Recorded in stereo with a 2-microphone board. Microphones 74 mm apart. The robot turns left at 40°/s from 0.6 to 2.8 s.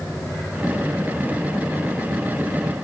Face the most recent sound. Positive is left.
No sound to turn to.